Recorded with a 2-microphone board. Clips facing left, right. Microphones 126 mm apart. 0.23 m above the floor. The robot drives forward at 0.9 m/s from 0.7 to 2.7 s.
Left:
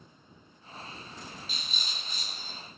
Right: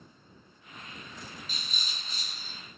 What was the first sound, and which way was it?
A rattle, 50° right (ahead or behind).